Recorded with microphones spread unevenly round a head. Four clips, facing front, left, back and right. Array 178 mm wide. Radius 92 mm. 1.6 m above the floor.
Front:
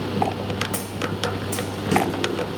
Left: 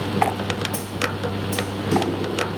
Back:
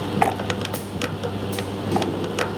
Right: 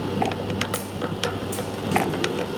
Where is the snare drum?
15° left, 1.4 m.